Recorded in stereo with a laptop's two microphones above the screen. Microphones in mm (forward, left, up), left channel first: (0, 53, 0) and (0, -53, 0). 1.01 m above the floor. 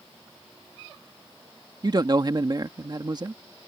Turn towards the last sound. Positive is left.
turn(degrees=-40)  # may be behind; listen again after turning